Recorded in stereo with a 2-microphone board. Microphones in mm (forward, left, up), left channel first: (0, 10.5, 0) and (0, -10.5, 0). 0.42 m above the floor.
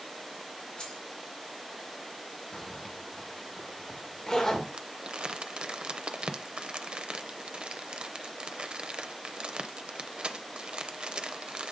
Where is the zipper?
35° left (ahead or behind), 1.3 m.